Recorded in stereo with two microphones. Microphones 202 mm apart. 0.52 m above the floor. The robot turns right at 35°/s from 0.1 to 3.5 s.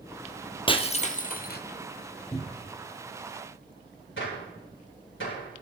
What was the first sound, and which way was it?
Breaking glass, 25° left.